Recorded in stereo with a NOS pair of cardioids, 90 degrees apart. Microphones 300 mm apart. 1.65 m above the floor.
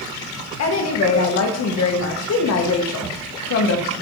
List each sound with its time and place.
0.6 s a woman speaking: 60° left, 1.4 m